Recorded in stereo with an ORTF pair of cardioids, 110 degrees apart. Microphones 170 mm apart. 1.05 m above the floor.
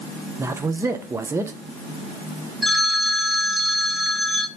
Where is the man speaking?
15° right, 0.6 m.